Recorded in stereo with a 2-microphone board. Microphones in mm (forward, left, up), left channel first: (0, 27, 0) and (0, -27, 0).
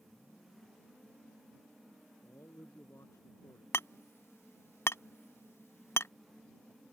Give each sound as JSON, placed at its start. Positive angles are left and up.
{"t": 2.2, "sound": "a man speaking", "side_deg": 65}
{"t": 3.7, "sound": "hammering", "side_deg": 60}